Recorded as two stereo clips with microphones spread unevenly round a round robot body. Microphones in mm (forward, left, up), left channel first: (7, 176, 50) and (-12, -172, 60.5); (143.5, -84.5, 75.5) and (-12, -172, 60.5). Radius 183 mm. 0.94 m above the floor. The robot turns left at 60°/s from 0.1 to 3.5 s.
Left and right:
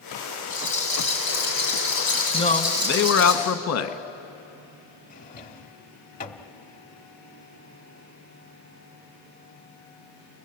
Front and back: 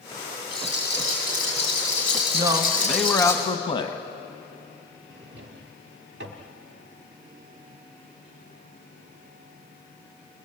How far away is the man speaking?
About 1.1 m.